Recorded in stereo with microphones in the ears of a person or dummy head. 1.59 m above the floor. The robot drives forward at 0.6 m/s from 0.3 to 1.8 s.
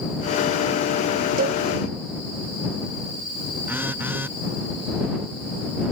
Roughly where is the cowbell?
Right.